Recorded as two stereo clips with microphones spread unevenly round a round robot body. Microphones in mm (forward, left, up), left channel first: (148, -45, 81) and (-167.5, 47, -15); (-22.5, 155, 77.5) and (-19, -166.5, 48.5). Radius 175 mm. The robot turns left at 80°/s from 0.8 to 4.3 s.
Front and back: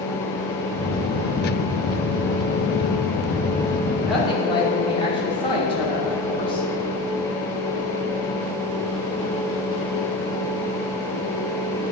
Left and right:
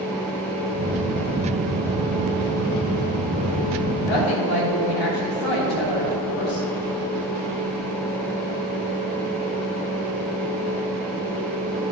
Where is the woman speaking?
90° left, 3 m; by 6.7 s 65° left, 3 m.